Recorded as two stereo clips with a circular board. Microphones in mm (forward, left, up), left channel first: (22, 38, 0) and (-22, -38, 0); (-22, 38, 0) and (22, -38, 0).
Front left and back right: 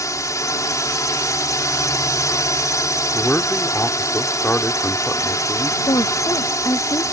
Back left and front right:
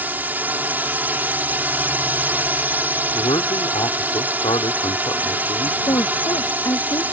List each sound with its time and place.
0.0 s a drone: 10° left
3.1 s a man speaking: 130° left
5.9 s a woman speaking: 90° left